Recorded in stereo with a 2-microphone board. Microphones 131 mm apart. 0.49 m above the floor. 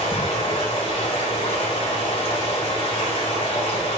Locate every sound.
0.0 s running water: 45° left (ahead or behind), 2 m